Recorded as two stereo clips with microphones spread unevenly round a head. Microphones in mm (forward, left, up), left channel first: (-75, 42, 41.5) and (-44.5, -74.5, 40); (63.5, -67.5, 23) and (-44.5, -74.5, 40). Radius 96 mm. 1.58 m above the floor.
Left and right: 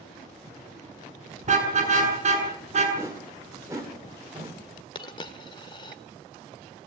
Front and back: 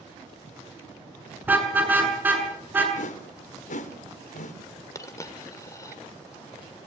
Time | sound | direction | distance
1.4 | a car horn | 105° right | 7 m
3.0 | a whoosh | straight ahead | 3 m
5.0 | a dropped coin | 75° left | 1.4 m